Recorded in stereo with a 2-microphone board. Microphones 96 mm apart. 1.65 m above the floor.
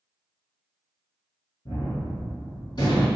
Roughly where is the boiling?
No boiling in this recording.